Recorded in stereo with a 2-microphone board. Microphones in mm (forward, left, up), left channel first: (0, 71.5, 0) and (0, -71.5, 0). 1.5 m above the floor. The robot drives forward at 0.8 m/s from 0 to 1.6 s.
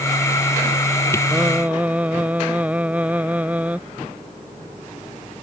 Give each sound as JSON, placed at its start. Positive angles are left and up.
{"t": 1.3, "sound": "singing", "side_deg": -10}